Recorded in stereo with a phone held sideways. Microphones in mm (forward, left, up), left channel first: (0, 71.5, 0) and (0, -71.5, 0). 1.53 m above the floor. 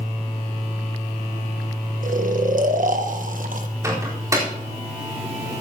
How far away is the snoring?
About 1.2 m.